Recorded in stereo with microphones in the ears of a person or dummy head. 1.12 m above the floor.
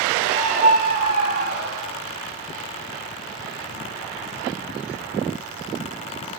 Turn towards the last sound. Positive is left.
turn(degrees=-65)  # may be behind; listen again after turning